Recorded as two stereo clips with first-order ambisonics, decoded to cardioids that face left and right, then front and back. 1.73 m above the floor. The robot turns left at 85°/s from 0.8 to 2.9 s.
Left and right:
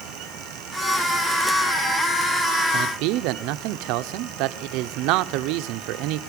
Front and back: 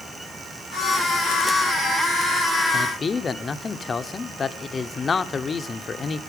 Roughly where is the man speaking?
Ahead right.